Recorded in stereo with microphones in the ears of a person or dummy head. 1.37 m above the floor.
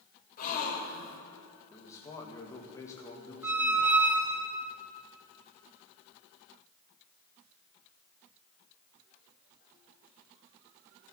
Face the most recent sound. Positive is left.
turn(degrees=-15)  # may be behind; listen again after turning